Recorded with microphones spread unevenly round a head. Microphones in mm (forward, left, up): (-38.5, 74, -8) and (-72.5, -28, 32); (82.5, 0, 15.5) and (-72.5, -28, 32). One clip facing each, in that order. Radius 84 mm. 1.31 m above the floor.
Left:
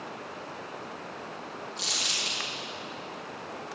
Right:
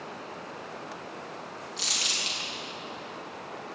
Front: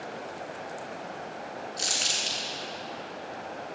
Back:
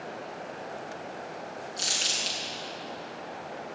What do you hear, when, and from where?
1.8 s crumpling: 130° right, 6 m